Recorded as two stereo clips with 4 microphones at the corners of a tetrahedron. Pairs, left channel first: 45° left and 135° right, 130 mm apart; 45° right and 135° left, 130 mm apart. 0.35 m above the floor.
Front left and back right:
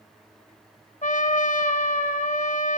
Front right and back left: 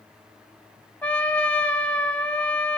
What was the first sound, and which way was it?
A trumpet, 35° left.